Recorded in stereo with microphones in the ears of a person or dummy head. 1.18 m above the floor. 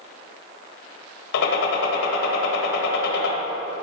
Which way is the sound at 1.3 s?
70° left (ahead or behind).